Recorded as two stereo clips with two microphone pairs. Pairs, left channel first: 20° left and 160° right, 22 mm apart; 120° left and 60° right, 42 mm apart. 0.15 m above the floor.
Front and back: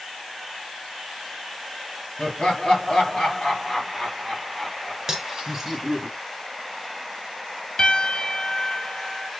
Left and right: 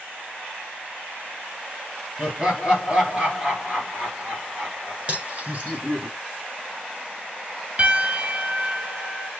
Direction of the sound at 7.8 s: 20° right.